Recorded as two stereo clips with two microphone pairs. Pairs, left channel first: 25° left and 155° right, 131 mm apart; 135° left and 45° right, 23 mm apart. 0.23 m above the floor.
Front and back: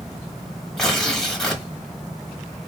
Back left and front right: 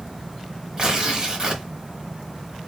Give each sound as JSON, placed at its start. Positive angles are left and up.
{"t": 0.8, "sound": "tearing paper", "azimuth_deg": -55, "distance_m": 1.1}